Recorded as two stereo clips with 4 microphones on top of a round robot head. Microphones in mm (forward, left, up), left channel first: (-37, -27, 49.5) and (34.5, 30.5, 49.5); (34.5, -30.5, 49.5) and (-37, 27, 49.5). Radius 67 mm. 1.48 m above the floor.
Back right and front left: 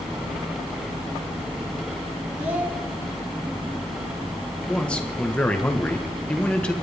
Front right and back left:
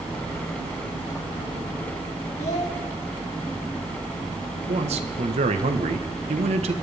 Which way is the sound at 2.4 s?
35° right.